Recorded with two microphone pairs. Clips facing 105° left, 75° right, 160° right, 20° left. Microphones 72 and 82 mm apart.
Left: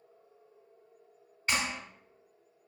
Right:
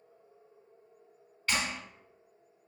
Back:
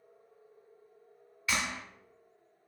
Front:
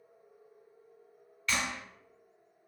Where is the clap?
135° left, 0.9 m.